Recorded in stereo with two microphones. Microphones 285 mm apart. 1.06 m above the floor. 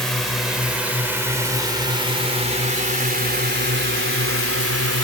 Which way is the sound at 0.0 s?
Centre (ahead or behind).